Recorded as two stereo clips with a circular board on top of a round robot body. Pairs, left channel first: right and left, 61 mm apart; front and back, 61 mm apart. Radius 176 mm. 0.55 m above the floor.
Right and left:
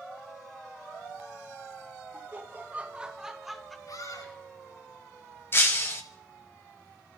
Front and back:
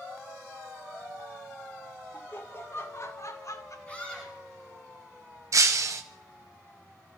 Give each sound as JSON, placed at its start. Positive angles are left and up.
{"t": 2.1, "sound": "laughter", "azimuth_deg": 50, "distance_m": 2.0}
{"t": 3.9, "sound": "a scream", "azimuth_deg": -65, "distance_m": 10.0}
{"t": 5.5, "sound": "breaking glass", "azimuth_deg": -145, "distance_m": 1.1}